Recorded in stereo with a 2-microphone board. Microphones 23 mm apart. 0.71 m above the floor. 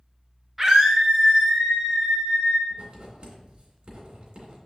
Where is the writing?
50° right (ahead or behind), 2.5 m.